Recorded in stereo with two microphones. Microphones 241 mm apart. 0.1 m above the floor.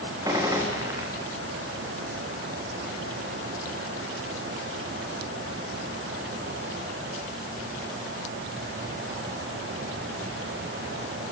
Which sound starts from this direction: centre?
A gunshot, at 0.2 s.